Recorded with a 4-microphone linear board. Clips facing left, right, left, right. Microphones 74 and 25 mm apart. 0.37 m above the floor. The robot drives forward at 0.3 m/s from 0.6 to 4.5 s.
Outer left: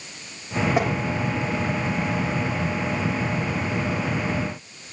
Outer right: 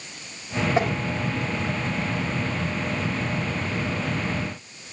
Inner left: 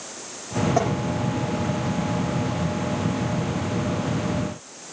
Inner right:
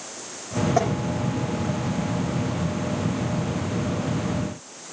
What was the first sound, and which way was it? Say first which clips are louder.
Tapping: outer right 1 dB, inner right 1 dB; 10° left (ahead or behind).